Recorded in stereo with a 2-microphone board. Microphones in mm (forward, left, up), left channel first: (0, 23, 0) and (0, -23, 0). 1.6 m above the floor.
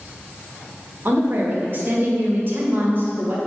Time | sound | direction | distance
1.1 | a woman speaking | 50° right (ahead or behind) | 1.7 m